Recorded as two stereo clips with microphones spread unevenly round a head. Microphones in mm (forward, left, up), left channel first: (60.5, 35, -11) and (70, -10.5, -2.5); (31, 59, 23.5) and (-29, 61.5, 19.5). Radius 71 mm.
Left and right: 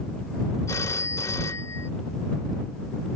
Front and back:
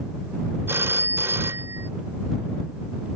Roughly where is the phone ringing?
Behind left.